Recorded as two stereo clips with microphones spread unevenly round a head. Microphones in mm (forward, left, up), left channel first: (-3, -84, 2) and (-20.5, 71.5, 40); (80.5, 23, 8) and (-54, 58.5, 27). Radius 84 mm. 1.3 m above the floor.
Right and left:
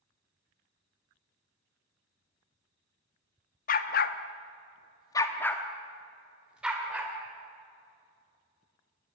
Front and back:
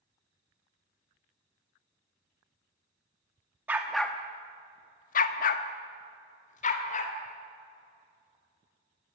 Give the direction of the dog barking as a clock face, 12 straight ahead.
4 o'clock.